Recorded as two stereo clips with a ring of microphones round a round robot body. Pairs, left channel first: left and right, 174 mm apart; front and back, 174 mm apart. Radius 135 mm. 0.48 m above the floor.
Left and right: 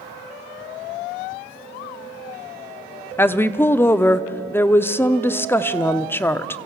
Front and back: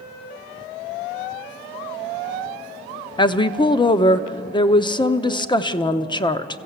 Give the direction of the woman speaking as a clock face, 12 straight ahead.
11 o'clock.